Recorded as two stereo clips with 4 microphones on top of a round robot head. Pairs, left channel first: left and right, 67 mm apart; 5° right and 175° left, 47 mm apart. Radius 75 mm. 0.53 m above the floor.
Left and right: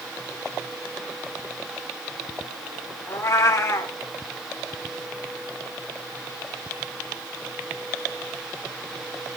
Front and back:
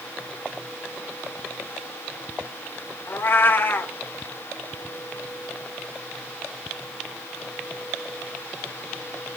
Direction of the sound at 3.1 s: 35° left.